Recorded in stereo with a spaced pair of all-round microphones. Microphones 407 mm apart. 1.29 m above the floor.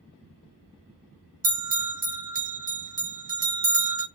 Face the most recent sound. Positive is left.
turn(degrees=-55)  # may be behind; listen again after turning